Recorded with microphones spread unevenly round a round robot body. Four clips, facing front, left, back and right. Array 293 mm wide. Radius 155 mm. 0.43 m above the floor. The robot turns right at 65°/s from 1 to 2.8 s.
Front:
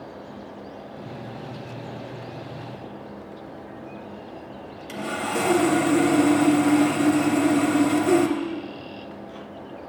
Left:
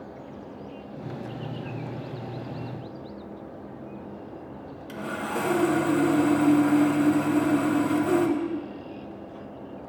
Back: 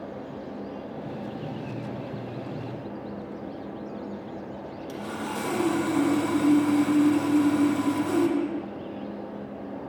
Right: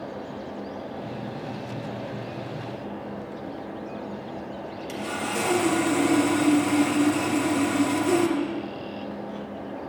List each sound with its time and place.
4.9 s sawing: straight ahead, 0.7 m